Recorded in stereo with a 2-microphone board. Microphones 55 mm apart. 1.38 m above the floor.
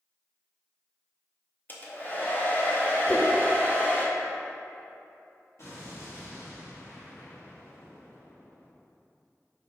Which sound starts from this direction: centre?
A whoosh, at 3.1 s.